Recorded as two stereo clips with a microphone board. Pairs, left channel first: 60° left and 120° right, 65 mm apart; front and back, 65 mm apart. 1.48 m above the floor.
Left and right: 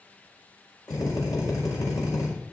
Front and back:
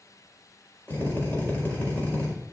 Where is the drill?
65° left, 5 m.